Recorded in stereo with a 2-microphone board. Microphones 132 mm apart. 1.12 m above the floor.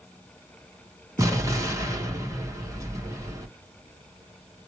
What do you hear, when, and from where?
1.2 s an explosion: 25° right (ahead or behind), 1.2 m